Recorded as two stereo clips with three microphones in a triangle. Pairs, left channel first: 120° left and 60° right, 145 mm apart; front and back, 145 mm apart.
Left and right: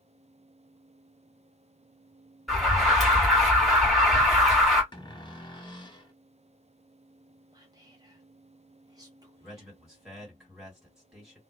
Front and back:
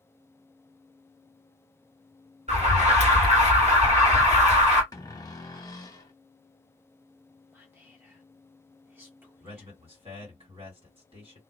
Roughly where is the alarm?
Behind right.